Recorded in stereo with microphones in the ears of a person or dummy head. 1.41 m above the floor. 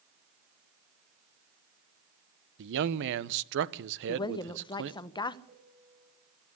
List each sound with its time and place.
2.6 s a man speaking: 70° right (ahead or behind), 1.1 m
4.1 s a woman speaking: 25° left (ahead or behind), 1.0 m
5.5 s a piano: 35° right (ahead or behind), 6 m